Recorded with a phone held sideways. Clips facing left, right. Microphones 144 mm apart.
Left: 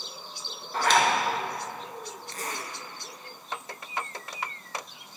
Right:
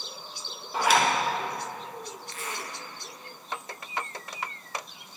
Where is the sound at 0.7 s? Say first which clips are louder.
Even; 10° right (ahead or behind), 1.1 m.